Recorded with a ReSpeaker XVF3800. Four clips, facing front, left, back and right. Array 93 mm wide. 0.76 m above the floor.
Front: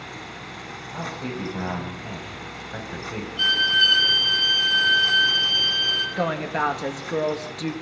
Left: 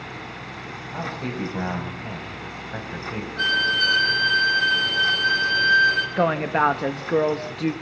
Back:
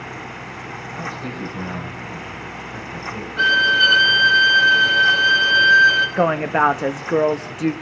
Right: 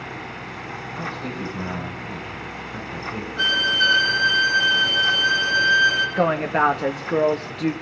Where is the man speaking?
70° left, 6 m; by 3.3 s 55° left, 6 m.